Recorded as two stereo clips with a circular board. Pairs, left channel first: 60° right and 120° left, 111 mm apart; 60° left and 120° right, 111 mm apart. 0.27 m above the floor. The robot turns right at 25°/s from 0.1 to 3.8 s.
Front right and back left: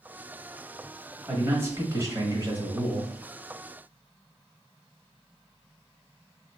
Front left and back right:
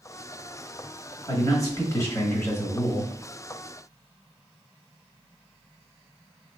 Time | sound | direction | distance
1.3 | a man speaking | 75° left | 1.0 m